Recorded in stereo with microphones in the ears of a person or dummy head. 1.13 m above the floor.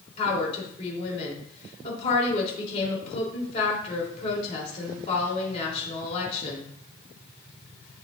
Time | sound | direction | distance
0.2 | a woman speaking | 35° left (ahead or behind) | 3 m